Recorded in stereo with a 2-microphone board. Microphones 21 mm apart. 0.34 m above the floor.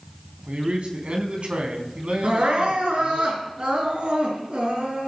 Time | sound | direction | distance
0.5 | a man speaking | 65° right (ahead or behind) | 3.5 m
2.2 | crying | 70° right (ahead or behind) | 4 m